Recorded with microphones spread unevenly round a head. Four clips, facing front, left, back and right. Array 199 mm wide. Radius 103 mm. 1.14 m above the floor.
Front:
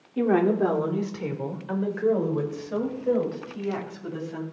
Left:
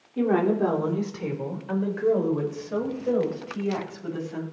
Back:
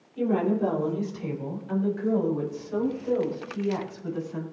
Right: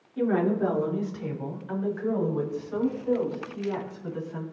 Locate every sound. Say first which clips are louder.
0.2 s a woman speaking: left 2 dB, front 3 dB; 25° left, 3 m; by 4.4 s 50° left, 6.5 m